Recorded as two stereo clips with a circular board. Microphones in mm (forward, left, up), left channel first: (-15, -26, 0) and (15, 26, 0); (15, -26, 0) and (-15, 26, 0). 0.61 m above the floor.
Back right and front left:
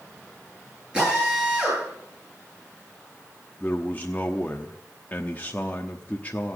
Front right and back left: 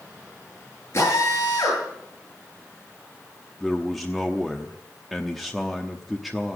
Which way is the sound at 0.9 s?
15° right.